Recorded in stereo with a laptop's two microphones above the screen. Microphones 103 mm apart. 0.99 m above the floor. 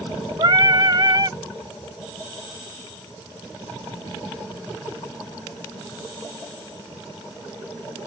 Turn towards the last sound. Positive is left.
turn(degrees=-45)  # may be behind; listen again after turning